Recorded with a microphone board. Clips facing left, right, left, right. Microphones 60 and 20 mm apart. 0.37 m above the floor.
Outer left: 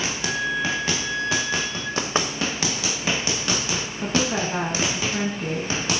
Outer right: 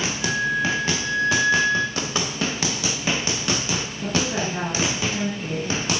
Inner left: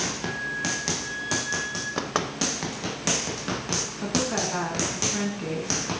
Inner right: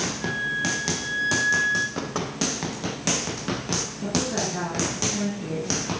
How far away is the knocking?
About 0.9 m.